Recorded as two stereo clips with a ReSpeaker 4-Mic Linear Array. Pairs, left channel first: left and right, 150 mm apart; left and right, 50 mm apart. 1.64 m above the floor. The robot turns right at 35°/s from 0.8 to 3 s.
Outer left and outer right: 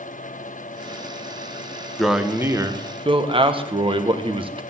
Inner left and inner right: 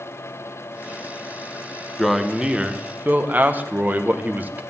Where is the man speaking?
Straight behind, 1.5 m; by 4.6 s 145° right, 1.5 m.